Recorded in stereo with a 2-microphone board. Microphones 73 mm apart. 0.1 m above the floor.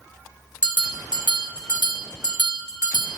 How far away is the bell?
About 1.0 m.